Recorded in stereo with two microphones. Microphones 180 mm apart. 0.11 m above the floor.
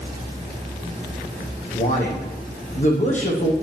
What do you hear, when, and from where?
1.7 s a man speaking: 45° left (ahead or behind), 6 m; by 3.5 s 40° left (ahead or behind), 5 m